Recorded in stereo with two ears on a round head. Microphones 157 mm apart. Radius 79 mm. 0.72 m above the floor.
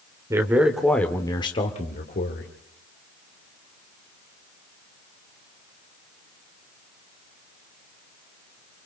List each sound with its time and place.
0.3 s a man speaking: 15° right (ahead or behind), 2.5 m; by 2.5 s 60° left (ahead or behind), 3 m